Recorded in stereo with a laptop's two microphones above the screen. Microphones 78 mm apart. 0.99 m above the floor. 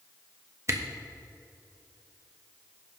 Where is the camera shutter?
35° right (ahead or behind), 1.0 m.